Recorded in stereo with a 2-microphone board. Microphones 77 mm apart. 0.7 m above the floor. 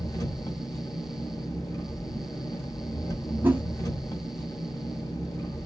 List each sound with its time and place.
0.0 s an engine running: 45° left (ahead or behind), 2 m
3.4 s a whoosh: 25° right (ahead or behind), 1.6 m